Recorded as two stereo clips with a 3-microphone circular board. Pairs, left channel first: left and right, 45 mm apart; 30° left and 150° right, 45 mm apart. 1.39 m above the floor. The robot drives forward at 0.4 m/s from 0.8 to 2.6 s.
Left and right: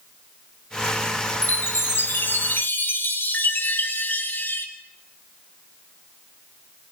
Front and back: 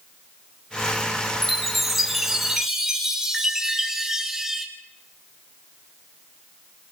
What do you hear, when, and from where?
1.4 s a chime: 115° left, 2.5 m; by 4.7 s 125° left, 2.5 m